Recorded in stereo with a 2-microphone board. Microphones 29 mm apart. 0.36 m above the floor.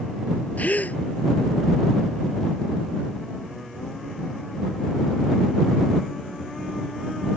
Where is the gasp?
65° left (ahead or behind).